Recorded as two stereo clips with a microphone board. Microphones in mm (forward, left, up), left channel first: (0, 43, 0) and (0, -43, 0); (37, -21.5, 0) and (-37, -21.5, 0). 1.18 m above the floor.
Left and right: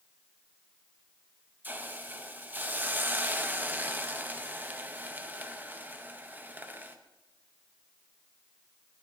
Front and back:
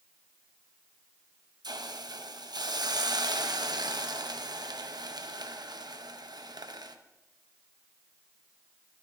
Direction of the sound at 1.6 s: 160° right.